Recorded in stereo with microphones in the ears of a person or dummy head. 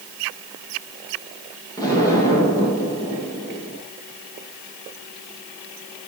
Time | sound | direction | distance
1.8 | an explosion | 25° left (ahead or behind) | 9 m